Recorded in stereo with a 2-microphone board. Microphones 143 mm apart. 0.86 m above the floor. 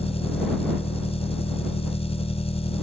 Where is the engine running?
45° left (ahead or behind).